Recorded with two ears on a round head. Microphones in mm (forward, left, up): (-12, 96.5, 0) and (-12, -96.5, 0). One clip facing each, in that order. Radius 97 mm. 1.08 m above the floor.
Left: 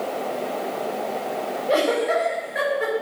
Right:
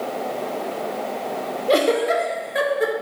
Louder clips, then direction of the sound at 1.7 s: Right 3 dB; 45° right (ahead or behind).